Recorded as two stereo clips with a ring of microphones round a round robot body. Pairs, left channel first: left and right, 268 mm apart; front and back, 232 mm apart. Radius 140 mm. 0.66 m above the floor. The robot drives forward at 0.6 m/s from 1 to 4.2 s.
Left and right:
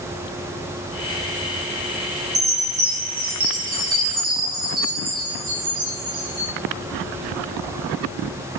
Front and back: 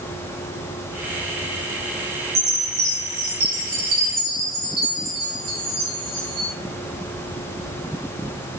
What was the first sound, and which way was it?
A chime, 145° right.